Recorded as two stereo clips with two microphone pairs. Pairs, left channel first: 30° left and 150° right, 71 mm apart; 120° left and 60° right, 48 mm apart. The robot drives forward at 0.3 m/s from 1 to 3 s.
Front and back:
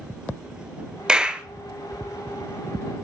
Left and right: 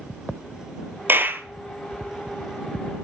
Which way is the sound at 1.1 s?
75° right.